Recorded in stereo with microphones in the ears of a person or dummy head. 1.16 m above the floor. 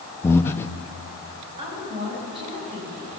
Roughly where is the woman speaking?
Right.